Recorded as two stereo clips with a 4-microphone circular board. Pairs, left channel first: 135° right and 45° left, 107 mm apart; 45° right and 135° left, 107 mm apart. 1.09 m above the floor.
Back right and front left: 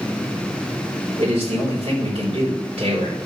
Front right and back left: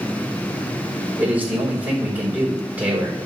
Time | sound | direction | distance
1.2 | a man speaking | 60° left | 3.5 m